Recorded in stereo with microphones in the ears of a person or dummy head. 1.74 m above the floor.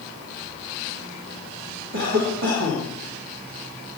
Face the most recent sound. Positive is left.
turn(degrees=-75)  # may be behind; listen again after turning